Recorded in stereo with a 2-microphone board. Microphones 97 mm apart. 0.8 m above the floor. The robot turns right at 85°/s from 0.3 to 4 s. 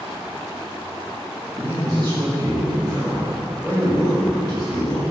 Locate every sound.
1.5 s a man speaking: 160° right, 1.7 m; by 5.0 s 50° left, 1.7 m